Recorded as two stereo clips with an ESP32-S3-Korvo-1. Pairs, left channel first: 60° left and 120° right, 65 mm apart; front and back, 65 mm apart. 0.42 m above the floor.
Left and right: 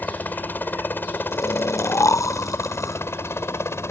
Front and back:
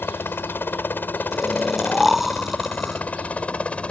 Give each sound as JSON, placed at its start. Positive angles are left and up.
{"t": 0.0, "sound": "a helicopter", "azimuth_deg": 20}
{"t": 1.3, "sound": "snoring", "azimuth_deg": 95}